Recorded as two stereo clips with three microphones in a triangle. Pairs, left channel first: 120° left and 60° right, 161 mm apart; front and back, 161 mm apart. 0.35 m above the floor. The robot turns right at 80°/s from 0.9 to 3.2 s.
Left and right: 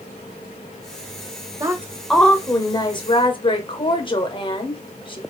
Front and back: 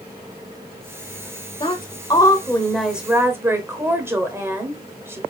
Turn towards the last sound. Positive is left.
turn(degrees=120)